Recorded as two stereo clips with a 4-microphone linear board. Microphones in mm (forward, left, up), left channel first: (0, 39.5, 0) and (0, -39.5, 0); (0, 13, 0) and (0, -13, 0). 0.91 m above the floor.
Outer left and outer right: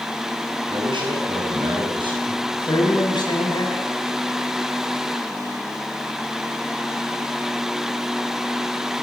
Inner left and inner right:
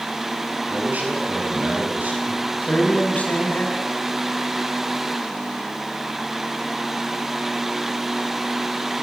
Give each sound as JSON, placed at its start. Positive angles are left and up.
{"t": 0.7, "sound": "a man speaking", "side_deg": -80, "distance_m": 7.5}
{"t": 2.3, "sound": "a man speaking", "side_deg": 65, "distance_m": 6.0}